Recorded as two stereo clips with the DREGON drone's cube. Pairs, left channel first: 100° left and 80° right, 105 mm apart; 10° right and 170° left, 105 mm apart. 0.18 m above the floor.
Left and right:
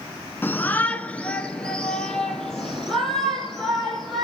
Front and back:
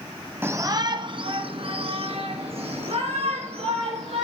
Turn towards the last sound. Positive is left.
turn(degrees=-170)